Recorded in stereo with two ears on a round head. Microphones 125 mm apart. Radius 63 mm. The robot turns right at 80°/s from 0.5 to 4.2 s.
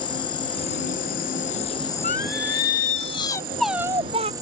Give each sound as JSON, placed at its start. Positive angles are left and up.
{"t": 0.0, "sound": "an insect", "azimuth_deg": 35}
{"t": 2.0, "sound": "singing", "azimuth_deg": 55}